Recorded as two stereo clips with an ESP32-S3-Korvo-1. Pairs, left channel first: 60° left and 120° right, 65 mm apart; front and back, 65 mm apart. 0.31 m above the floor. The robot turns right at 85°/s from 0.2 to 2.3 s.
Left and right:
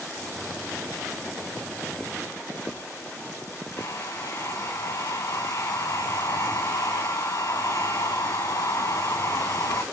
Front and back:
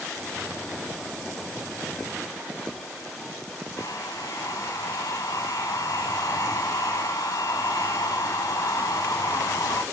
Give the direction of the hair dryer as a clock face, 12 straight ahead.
11 o'clock.